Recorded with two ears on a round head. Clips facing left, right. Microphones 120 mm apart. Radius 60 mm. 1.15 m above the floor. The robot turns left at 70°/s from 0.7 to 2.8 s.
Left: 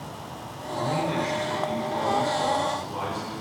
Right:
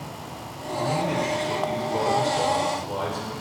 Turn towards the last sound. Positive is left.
turn(degrees=-130)